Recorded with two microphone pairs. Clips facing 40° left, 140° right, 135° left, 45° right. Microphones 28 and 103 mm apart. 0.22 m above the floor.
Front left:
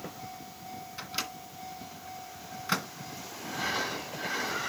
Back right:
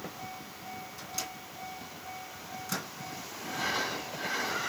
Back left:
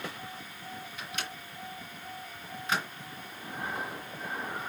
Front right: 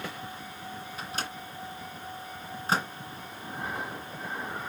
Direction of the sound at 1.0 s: Straight ahead.